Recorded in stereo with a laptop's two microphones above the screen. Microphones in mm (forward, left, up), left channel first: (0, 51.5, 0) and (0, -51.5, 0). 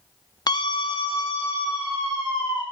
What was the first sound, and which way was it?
A scream, 40° left (ahead or behind).